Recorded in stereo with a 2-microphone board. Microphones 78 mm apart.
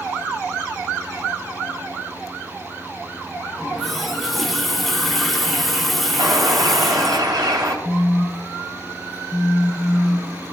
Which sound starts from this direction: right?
A bird, at 6.2 s.